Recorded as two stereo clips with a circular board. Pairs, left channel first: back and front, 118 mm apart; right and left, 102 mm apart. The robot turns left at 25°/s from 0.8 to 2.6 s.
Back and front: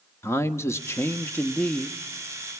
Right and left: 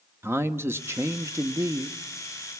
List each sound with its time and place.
0.2 s a man speaking: 135° left, 0.9 m; by 2.0 s 105° left, 0.9 m